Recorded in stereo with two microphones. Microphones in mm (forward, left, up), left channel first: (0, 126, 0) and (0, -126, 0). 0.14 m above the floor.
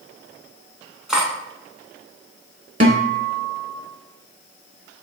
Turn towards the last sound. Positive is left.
turn(degrees=-30)  # may be behind; listen again after turning